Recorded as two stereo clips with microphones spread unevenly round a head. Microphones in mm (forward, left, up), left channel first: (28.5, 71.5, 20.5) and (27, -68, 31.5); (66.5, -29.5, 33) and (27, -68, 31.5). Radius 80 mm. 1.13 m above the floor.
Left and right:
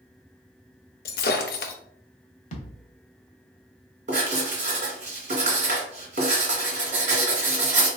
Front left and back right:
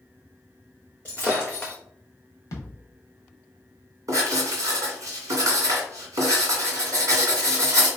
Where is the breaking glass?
125° left, 0.5 m.